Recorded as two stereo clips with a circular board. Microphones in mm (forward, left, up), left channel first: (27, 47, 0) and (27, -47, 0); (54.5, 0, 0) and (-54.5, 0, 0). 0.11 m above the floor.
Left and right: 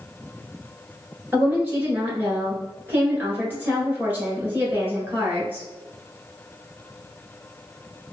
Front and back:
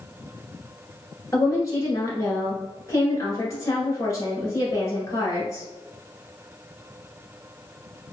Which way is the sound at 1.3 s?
35° right.